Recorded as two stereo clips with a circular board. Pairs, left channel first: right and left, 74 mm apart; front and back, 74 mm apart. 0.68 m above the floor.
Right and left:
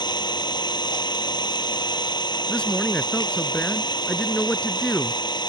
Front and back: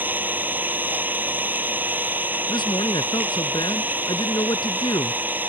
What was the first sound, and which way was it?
An engine running, 115° right.